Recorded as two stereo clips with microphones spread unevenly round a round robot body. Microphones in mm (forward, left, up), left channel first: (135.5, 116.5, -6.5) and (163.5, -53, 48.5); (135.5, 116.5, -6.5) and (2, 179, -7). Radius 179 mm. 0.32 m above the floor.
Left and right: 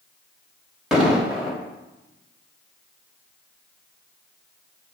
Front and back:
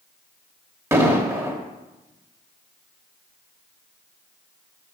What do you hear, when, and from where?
0.9 s an explosion: 135° left, 0.9 m